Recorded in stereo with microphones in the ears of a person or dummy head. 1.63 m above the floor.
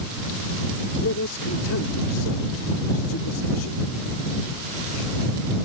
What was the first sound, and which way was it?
A man speaking, 85° left.